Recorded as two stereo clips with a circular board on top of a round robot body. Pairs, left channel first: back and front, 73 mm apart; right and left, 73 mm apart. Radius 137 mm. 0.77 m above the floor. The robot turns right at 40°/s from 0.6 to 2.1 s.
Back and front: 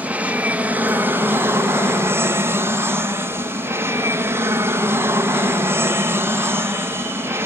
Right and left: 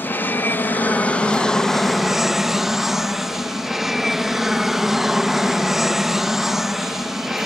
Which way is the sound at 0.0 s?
55° right.